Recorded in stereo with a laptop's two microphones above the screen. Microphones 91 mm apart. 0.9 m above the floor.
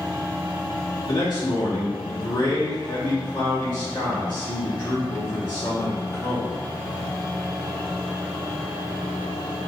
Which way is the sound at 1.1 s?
60° left (ahead or behind).